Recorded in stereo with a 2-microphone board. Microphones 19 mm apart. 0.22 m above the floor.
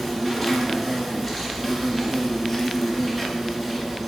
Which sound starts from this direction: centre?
An insect, at 0.0 s.